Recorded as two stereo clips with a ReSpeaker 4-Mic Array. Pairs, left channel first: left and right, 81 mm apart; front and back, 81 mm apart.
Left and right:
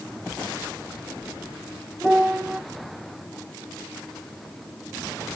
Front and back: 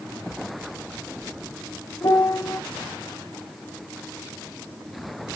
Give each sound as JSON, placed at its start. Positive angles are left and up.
{"t": 2.0, "sound": "a piano", "azimuth_deg": 0, "distance_m": 0.9}